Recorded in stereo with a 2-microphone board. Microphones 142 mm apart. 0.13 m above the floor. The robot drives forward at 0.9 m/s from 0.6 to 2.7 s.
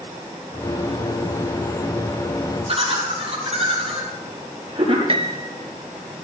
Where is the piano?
40° right (ahead or behind), 0.8 m.